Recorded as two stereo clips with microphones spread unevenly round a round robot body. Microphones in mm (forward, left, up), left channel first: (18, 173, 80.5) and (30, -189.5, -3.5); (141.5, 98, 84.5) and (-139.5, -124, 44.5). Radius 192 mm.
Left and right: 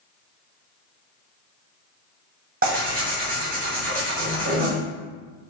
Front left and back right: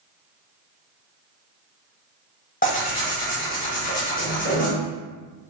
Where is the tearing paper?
30° right, 1.4 m.